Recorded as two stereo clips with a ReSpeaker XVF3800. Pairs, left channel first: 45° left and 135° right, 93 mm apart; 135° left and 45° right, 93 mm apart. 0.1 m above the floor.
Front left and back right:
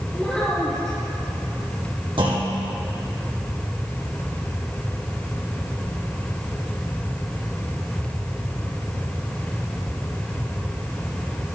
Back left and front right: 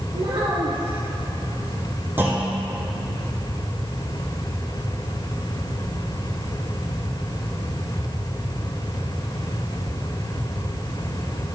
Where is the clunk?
115° right, 2.5 m.